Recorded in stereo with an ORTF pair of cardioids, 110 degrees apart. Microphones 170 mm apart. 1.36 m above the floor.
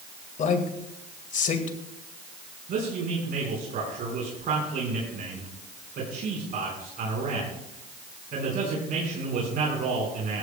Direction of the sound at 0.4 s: 50° left.